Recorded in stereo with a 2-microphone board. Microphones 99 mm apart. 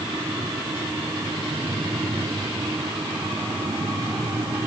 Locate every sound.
Only background noise.